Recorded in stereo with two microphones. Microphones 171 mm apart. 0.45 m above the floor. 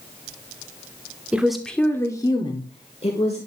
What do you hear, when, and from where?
1.3 s a woman speaking: 5° right (ahead or behind), 0.9 m; by 3.4 s 40° left (ahead or behind), 1.3 m